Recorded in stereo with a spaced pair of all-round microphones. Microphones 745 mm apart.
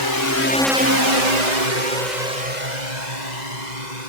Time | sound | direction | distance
0.0 | a drone | 35° left (ahead or behind) | ?